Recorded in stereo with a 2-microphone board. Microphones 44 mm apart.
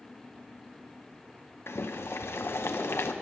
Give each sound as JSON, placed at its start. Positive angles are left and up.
{"t": 1.7, "sound": "boiling", "side_deg": 60, "distance_m": 0.7}